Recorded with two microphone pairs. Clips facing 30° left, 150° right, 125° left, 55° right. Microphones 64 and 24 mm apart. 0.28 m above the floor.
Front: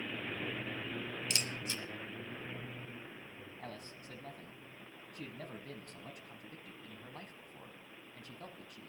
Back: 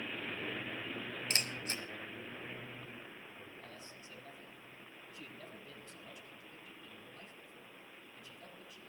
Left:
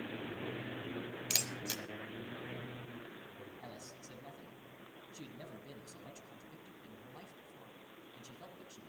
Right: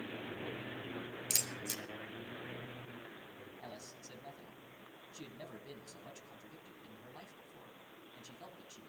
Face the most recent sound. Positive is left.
turn(degrees=30)